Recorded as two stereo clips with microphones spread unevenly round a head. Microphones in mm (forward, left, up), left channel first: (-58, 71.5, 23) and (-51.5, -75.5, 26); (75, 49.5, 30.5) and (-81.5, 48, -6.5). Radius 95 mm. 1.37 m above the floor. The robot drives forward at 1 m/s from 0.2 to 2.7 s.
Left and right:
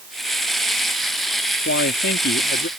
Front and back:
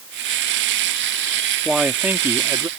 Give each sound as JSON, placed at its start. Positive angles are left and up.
{"t": 1.6, "sound": "a man speaking", "azimuth_deg": 90}